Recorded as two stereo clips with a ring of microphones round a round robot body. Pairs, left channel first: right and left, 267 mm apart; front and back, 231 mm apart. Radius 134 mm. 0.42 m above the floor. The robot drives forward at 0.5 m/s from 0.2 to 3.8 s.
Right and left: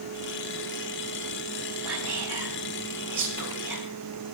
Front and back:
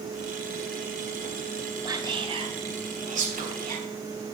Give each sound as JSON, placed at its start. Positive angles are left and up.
{"t": 1.9, "sound": "whispering", "azimuth_deg": 110, "distance_m": 2.0}